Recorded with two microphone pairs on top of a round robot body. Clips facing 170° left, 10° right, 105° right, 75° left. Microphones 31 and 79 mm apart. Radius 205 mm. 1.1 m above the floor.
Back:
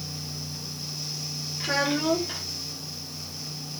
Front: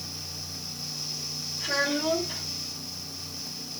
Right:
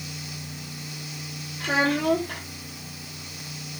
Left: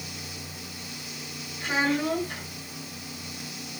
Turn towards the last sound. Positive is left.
turn(degrees=-140)